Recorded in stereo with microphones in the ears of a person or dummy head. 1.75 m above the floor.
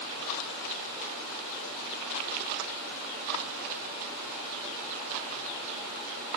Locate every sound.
Only background noise.